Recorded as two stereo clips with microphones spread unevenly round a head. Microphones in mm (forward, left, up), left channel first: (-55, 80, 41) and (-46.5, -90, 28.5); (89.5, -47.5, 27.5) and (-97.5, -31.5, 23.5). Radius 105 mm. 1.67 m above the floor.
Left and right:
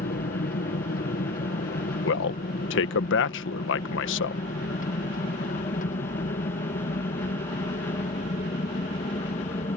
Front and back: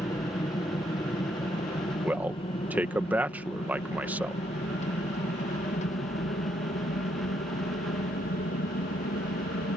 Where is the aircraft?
65° left; by 9.8 s 40° left.